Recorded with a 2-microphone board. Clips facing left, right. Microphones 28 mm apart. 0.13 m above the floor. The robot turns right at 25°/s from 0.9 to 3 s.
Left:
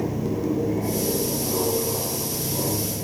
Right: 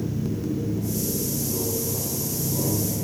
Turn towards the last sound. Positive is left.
turn(degrees=165)